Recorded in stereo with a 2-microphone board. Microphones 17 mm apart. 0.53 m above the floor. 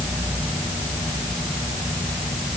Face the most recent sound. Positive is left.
No sound to turn to.